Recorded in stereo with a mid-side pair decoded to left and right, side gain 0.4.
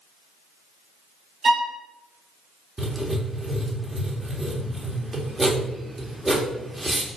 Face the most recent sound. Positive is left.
turn(degrees=-15)